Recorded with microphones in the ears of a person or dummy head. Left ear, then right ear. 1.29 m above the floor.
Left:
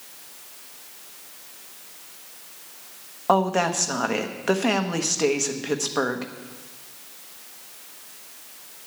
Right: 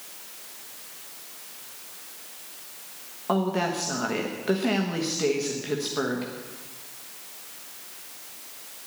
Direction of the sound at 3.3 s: 35° left (ahead or behind).